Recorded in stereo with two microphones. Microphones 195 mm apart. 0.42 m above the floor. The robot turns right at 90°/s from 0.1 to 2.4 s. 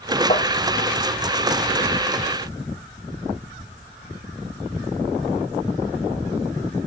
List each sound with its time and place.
0.3 s tapping: 35° left (ahead or behind), 3.5 m; by 0.5 s 55° left (ahead or behind), 3.5 m